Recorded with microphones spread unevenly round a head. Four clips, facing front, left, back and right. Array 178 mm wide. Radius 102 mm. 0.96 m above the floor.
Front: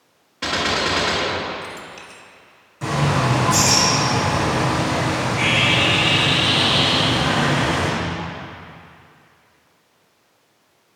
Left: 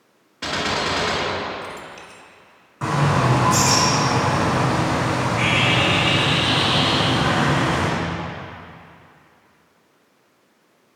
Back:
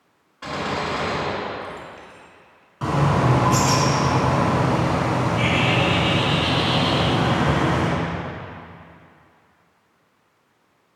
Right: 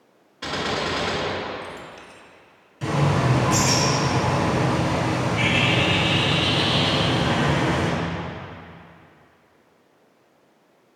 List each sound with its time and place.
0.4 s a gunshot: 45° left, 1.9 m
2.8 s a bird: 115° left, 4.5 m